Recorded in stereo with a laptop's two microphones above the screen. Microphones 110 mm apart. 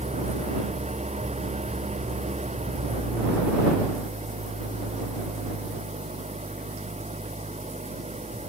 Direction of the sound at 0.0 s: 85° right.